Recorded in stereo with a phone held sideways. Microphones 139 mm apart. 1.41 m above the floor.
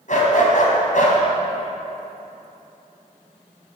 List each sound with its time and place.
0.1 s a dog barking: 65° left (ahead or behind), 2.5 m